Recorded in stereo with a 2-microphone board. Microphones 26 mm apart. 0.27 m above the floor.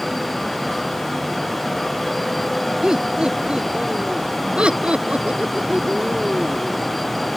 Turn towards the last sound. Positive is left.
turn(degrees=-65)  # may be behind; listen again after turning